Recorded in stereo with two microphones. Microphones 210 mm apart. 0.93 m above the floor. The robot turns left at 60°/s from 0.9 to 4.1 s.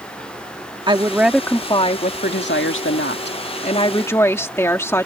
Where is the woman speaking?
155° right; by 5.1 s 15° left.